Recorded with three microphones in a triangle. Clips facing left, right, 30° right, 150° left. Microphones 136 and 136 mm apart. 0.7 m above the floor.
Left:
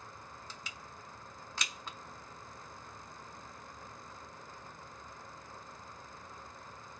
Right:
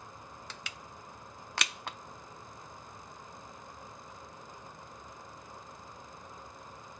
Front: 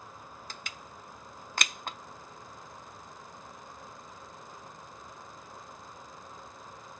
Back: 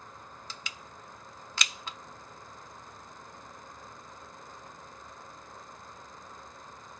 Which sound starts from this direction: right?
Crushing, at 0.5 s.